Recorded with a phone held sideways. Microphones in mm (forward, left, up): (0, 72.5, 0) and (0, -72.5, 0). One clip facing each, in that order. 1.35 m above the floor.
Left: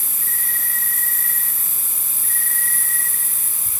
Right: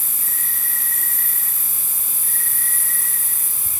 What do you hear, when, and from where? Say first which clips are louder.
0.0 s an insect: left 1 dB; 25° right (ahead or behind), 7.5 m